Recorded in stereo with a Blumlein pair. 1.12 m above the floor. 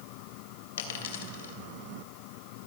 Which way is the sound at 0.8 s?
60° left.